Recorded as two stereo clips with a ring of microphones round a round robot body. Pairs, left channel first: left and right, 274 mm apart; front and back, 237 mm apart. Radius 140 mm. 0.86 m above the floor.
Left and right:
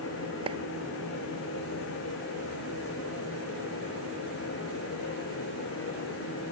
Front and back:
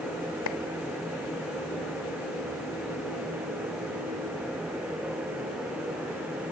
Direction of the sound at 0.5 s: 20° right.